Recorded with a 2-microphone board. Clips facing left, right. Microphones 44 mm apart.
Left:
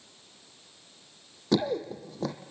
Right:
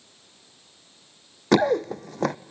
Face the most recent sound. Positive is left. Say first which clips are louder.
# right 7 dB
turn(degrees=-65)  # may be behind; listen again after turning